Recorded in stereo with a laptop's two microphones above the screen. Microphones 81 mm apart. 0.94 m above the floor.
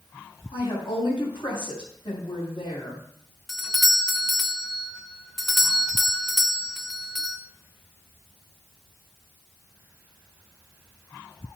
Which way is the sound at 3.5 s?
5° right (ahead or behind).